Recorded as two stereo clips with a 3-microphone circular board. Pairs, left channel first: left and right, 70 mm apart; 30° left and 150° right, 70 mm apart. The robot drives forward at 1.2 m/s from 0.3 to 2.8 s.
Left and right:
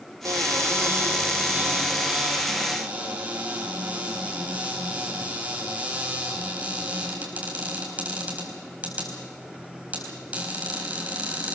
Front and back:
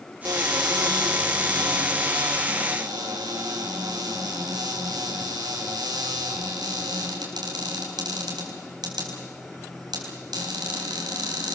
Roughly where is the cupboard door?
Behind right.